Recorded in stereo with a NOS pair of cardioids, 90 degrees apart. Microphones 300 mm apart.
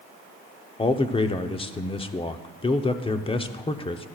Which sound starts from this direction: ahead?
A man speaking, at 0.8 s.